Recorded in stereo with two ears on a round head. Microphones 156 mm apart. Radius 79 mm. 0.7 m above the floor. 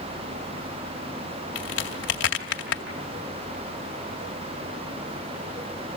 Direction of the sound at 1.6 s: 80° left.